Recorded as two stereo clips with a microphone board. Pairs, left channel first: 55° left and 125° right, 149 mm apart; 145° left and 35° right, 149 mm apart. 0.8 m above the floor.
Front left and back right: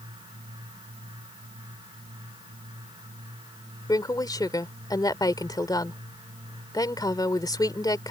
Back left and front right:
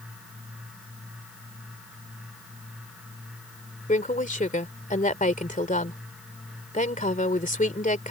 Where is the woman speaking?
120° left.